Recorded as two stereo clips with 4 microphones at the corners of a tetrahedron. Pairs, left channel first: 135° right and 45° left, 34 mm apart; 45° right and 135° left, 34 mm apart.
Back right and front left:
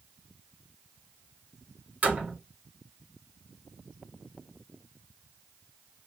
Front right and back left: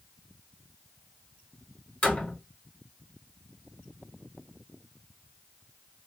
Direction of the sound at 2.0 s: 5° left.